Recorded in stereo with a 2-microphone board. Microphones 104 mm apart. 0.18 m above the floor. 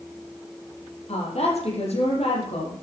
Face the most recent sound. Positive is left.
turn(degrees=80)